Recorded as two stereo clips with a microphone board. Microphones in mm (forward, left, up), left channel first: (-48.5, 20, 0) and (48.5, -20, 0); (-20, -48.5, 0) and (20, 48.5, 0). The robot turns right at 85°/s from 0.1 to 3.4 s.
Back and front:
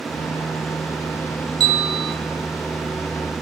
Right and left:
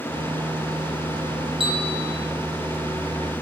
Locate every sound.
1.6 s a bell: 65° left, 2.5 m; by 2.1 s 110° left, 2.5 m